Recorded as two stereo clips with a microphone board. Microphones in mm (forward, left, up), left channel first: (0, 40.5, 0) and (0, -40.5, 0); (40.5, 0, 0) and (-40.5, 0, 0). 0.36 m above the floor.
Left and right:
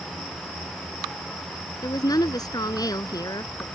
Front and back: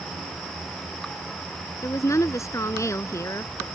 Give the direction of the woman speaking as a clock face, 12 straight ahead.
10 o'clock.